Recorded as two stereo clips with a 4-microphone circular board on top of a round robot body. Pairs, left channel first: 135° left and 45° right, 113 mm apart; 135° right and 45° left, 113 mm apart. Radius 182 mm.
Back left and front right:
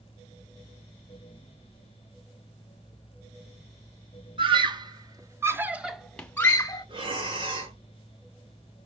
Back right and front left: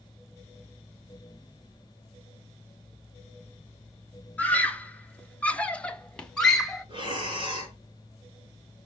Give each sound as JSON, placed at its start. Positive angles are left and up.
{"t": 4.4, "sound": "a scream", "azimuth_deg": -60, "distance_m": 2.0}
{"t": 6.9, "sound": "breathing", "azimuth_deg": 0, "distance_m": 4.5}